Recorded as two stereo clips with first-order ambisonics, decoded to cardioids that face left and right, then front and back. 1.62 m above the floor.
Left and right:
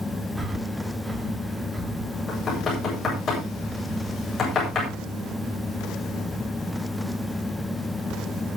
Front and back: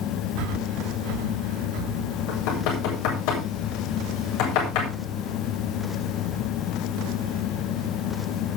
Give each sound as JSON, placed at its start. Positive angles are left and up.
{"t": 0.4, "sound": "breathing", "azimuth_deg": -175, "distance_m": 2.0}
{"t": 2.3, "sound": "knocking", "azimuth_deg": 25, "distance_m": 8.0}